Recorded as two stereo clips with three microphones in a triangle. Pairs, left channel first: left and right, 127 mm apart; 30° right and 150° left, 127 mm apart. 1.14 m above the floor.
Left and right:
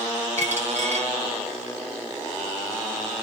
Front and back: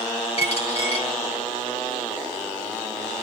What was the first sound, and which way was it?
A dropped coin, 70° right.